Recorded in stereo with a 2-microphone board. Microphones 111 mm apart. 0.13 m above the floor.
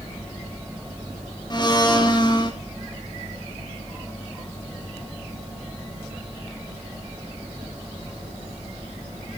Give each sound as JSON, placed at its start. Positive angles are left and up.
{"t": 1.5, "sound": "a blender", "side_deg": 40, "distance_m": 2.0}